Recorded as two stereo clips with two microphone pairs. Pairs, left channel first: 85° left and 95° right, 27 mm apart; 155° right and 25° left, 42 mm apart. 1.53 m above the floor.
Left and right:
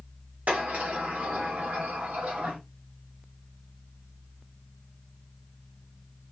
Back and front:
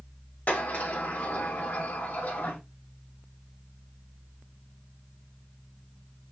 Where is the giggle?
No giggle in this recording.